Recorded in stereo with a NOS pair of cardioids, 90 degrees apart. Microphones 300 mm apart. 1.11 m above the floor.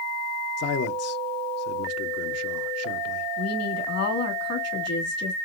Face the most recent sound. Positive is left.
turn(degrees=55)